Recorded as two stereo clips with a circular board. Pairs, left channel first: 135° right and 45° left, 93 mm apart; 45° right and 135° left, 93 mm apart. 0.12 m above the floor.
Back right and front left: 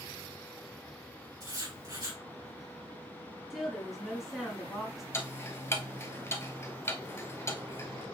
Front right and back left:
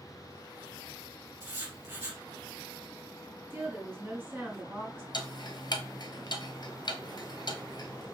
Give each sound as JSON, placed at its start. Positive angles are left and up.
{"t": 1.4, "sound": "writing", "azimuth_deg": 75, "distance_m": 3.0}
{"t": 3.5, "sound": "a woman speaking", "azimuth_deg": 130, "distance_m": 1.8}
{"t": 5.1, "sound": "ticking", "azimuth_deg": -80, "distance_m": 0.8}